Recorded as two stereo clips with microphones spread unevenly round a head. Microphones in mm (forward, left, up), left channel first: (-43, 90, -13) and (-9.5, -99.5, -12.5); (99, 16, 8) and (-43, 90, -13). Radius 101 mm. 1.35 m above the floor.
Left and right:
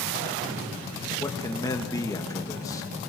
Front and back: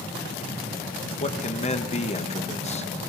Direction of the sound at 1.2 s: 25° left.